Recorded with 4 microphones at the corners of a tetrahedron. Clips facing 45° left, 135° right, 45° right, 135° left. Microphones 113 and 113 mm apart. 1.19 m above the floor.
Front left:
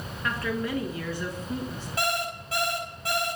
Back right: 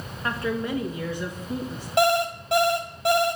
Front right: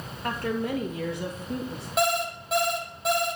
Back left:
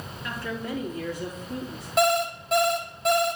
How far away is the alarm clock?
About 1.9 m.